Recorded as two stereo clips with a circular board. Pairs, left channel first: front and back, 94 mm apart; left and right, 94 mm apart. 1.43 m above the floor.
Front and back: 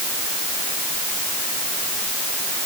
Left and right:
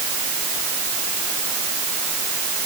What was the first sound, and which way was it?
Only background noise.